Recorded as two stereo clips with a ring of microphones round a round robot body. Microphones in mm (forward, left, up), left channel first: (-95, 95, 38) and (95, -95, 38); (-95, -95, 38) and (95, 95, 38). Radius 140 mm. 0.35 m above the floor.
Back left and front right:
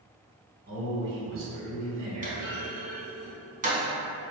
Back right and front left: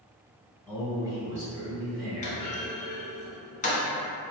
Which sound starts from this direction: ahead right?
A man speaking, at 0.7 s.